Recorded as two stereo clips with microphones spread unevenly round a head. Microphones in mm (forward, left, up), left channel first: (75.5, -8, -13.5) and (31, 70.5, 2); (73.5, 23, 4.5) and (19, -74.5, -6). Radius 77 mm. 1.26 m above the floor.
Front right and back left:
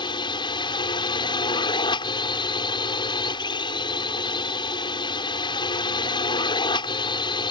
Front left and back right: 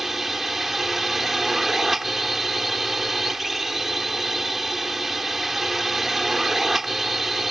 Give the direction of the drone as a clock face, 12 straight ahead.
1 o'clock.